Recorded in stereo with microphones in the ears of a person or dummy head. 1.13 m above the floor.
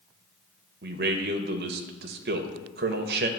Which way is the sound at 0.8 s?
45° right (ahead or behind).